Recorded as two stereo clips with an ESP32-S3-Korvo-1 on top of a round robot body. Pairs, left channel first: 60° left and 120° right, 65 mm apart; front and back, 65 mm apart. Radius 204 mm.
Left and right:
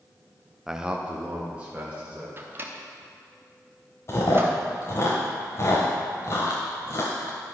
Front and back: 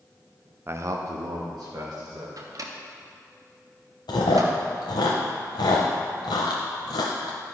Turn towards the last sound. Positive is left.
turn(degrees=10)